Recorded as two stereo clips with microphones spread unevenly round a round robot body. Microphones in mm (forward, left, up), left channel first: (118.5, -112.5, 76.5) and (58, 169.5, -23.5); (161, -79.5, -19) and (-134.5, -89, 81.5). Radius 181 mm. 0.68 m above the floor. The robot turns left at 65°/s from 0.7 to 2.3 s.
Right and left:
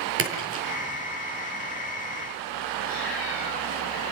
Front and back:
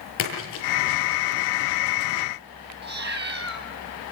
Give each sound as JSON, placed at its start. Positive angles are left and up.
{"t": 0.2, "sound": "a splash", "azimuth_deg": 55, "distance_m": 7.0}
{"t": 2.8, "sound": "a cat meowing", "azimuth_deg": -130, "distance_m": 2.5}